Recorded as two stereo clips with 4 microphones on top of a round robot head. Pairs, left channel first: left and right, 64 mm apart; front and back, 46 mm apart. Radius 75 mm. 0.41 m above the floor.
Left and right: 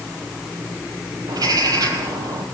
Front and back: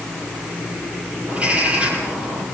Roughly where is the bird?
Behind right.